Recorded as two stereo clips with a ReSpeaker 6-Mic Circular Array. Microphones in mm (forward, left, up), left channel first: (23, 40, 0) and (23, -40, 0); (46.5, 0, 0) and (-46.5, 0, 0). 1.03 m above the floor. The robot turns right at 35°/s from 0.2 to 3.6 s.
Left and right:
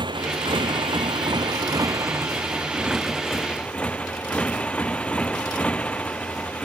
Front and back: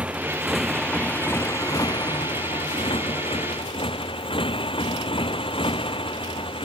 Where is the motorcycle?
105° right; by 6.7 s 15° left.